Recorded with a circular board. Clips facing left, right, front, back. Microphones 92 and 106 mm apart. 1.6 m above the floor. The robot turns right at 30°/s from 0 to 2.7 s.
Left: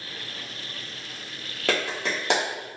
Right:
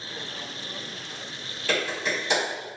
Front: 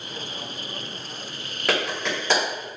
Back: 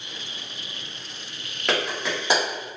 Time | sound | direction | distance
1.7 | a clap | 85° left | 1.8 m